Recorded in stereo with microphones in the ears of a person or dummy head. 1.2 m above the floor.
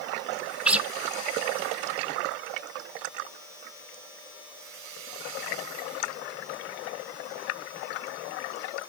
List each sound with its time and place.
0.7 s a guitar: 5° right (ahead or behind), 0.5 m